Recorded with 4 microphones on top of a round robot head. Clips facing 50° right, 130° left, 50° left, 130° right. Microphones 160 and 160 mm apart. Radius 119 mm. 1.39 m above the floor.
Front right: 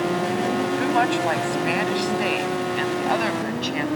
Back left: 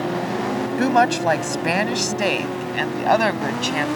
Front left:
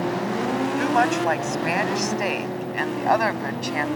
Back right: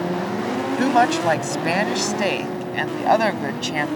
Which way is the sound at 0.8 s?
175° left.